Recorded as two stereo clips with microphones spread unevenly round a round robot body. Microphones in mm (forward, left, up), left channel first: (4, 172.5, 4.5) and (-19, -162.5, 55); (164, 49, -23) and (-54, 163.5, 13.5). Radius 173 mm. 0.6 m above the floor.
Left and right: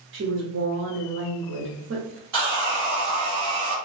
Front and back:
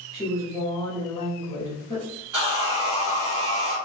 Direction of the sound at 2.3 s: 130° right.